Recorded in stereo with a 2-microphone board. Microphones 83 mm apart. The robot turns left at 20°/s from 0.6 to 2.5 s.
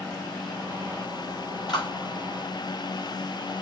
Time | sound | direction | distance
1.7 | a clap | 60° left (ahead or behind) | 6.5 m